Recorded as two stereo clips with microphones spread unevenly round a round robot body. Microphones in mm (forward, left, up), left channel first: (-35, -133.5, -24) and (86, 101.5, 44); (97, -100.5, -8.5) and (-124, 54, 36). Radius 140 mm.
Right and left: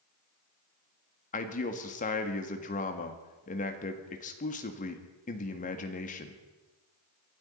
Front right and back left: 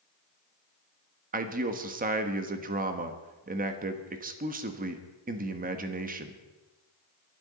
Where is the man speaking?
155° right, 1.5 m.